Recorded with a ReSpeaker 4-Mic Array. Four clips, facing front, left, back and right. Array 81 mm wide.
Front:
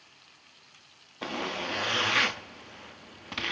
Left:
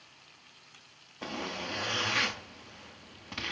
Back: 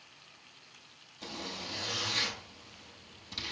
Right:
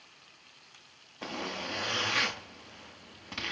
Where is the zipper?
Straight ahead, 0.5 m.